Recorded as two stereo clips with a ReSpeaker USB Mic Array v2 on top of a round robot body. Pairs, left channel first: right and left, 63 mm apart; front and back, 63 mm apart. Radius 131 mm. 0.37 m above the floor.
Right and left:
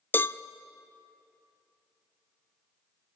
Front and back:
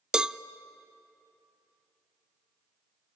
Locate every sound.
0.1 s a cowbell: 110° right, 0.6 m